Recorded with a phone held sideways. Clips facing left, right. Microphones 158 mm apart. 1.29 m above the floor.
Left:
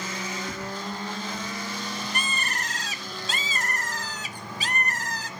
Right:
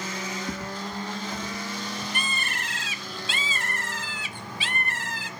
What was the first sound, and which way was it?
Footsteps, 15° right (ahead or behind).